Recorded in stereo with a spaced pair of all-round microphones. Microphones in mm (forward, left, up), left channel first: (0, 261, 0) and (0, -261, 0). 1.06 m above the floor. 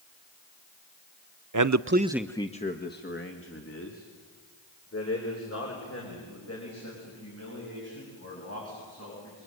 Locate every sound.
1.5 s a man speaking: 40° right (ahead or behind), 0.6 m; by 9.5 s 30° left (ahead or behind), 9 m